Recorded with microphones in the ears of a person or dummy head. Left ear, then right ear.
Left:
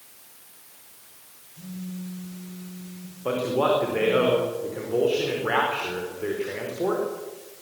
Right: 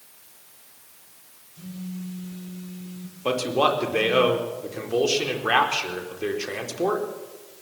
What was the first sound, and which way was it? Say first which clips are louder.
A phone buzzing: right 1 dB; 45° right (ahead or behind).